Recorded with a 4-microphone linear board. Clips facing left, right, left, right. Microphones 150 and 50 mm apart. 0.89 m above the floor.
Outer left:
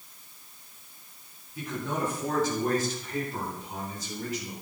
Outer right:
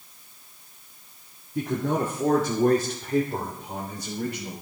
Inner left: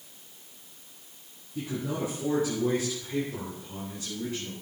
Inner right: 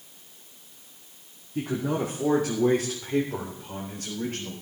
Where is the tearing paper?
I don't hear tearing paper.